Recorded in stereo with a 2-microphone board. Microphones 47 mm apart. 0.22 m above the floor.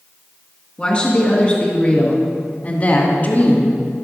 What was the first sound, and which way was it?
A woman speaking, 20° left (ahead or behind).